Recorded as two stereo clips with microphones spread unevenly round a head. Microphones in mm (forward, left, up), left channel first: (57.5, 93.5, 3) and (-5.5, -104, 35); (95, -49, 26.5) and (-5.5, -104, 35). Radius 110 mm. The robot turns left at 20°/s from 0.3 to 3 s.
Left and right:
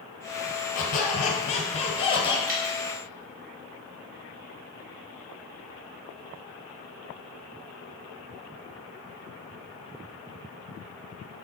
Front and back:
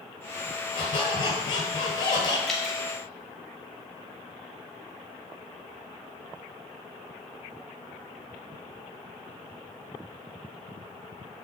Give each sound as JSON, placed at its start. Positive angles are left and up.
{"t": 0.8, "sound": "a squeak", "azimuth_deg": 40, "distance_m": 1.2}
{"t": 2.5, "sound": "dripping", "azimuth_deg": -60, "distance_m": 1.5}